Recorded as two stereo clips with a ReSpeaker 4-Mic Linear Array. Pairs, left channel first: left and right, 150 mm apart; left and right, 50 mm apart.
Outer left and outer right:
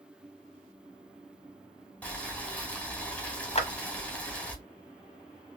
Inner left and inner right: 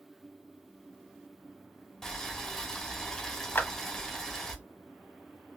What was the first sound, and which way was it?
Boiling, 10° left (ahead or behind).